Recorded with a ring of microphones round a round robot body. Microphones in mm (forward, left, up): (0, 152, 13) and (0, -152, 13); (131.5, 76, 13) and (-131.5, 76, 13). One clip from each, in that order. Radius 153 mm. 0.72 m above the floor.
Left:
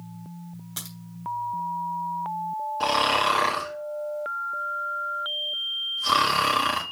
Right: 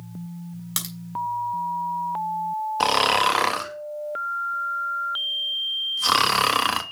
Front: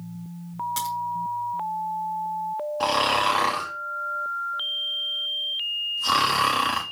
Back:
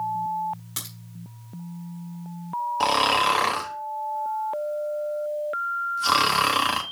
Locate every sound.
0.8 s a crack: 90° right, 3 m
2.8 s snoring: 110° right, 1.2 m